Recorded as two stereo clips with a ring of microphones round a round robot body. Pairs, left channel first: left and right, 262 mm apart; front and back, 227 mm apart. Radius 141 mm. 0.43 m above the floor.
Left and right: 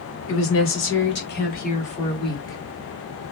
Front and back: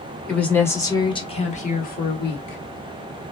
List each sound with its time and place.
0.3 s a woman speaking: 85° left, 1.5 m; by 2.6 s 15° left, 1.5 m